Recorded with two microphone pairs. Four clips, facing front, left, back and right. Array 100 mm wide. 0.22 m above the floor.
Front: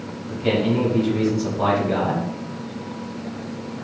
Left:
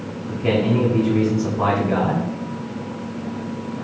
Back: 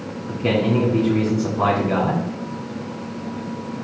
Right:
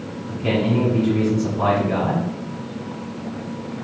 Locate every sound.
0.3 s a man speaking: 170° left, 2.5 m